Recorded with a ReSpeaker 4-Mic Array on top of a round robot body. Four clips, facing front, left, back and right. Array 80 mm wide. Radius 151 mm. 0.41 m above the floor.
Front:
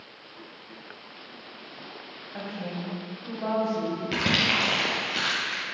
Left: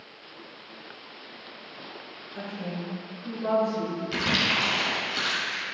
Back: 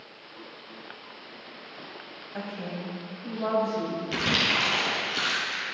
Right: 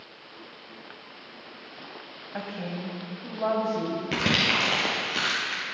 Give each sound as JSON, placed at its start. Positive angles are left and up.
{"t": 2.3, "sound": "a woman speaking", "azimuth_deg": -95, "distance_m": 3.0}
{"t": 4.1, "sound": "crumpling", "azimuth_deg": -60, "distance_m": 2.5}